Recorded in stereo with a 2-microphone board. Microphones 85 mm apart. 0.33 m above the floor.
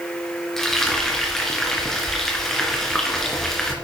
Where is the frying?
5° left (ahead or behind), 2.5 m.